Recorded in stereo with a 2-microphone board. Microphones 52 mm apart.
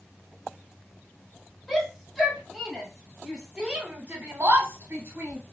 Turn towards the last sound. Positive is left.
turn(degrees=-55)  # may be behind; listen again after turning